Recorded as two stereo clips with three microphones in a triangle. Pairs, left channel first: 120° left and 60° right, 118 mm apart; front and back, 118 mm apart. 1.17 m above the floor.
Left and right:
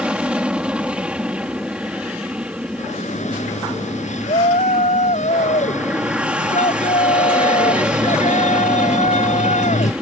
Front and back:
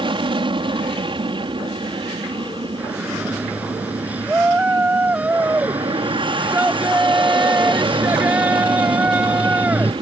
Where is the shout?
100° left.